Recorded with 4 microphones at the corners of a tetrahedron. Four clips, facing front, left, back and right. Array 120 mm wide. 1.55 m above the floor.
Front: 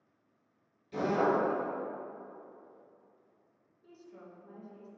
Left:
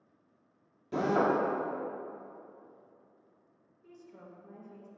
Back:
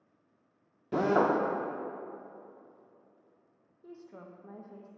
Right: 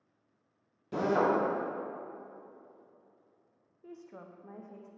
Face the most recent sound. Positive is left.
turn(degrees=-125)